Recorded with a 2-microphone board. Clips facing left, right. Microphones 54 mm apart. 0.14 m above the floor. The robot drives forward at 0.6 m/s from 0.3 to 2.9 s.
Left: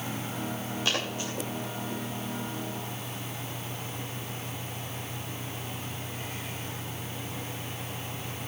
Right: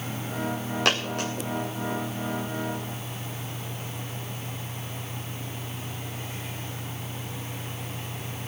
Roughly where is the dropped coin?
Right.